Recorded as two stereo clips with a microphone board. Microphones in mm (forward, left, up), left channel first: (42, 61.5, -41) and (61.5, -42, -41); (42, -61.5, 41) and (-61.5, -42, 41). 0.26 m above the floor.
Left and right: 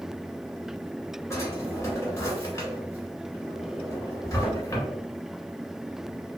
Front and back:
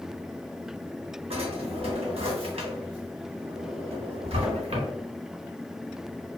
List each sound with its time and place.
1.3 s a drawer: 160° left, 1.1 m